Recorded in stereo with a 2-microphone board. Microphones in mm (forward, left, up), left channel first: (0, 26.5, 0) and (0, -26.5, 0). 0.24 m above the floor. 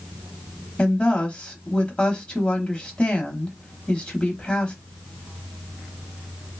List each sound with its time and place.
0.8 s a woman speaking: 20° left (ahead or behind), 1.0 m